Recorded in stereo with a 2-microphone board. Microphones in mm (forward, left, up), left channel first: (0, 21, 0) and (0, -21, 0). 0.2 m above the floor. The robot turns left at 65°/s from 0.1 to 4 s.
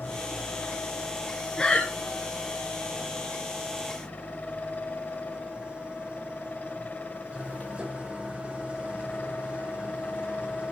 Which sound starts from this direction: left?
An engine running, at 0.0 s.